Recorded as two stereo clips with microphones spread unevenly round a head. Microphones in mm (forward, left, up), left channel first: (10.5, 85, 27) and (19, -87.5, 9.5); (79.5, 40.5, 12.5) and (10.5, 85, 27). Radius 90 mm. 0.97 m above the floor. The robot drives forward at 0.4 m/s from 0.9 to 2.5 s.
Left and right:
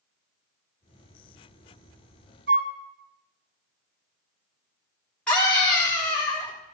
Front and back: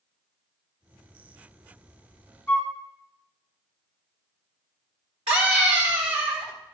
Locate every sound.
2.5 s a flute: 125° right, 1.0 m; by 2.8 s 130° right, 1.0 m
5.3 s a scream: straight behind, 3 m